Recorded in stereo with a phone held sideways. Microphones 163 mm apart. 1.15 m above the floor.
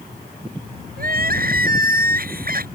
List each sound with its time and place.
1.0 s crying: 65° right (ahead or behind)